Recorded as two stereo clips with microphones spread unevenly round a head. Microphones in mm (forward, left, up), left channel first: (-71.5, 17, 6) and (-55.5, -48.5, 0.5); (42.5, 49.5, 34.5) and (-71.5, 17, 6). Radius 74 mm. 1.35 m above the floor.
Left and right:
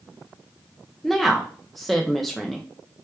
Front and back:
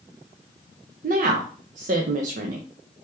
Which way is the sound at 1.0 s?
165° right.